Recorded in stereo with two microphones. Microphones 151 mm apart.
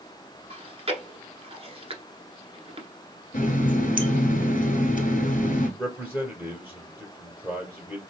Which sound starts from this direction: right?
Chewing, at 0.5 s.